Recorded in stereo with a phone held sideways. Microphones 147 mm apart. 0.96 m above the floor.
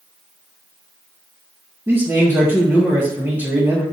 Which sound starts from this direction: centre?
A man speaking, at 1.9 s.